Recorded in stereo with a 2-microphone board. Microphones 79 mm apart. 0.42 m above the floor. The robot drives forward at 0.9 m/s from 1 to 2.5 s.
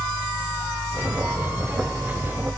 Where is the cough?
I don't hear a cough.